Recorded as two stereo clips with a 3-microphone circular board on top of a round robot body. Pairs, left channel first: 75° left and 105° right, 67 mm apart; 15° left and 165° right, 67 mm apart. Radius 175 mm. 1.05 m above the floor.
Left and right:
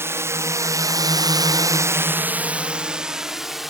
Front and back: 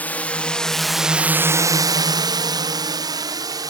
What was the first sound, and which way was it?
A drone, 55° right.